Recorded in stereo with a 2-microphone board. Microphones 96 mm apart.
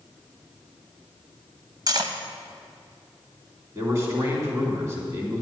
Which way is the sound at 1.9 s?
45° right (ahead or behind).